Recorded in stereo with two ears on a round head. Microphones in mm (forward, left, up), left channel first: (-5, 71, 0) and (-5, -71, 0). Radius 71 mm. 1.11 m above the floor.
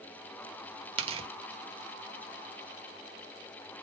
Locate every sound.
1.0 s tearing paper: 35° right (ahead or behind), 0.7 m